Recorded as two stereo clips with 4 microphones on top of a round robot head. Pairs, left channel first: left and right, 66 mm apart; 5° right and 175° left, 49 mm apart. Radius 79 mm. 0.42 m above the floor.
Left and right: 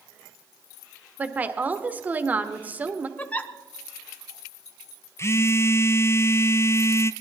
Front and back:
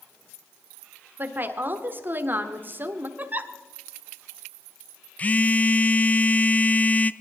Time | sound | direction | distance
1.2 | a woman speaking | 150° right | 1.2 m
3.2 | a giggle | 145° left | 0.9 m
5.2 | a phone buzzing | 50° left | 0.5 m